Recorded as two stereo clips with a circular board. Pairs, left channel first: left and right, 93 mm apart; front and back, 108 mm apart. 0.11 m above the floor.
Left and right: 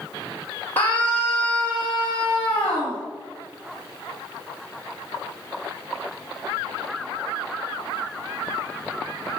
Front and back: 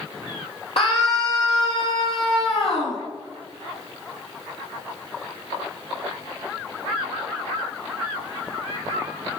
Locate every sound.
0.8 s a scream: 20° left, 3 m